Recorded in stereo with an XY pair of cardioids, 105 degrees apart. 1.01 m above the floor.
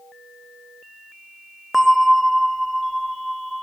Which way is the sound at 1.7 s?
Straight ahead.